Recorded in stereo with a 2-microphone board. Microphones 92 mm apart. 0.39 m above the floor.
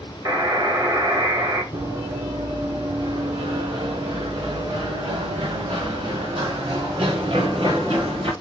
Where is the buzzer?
40° right (ahead or behind), 2.5 m.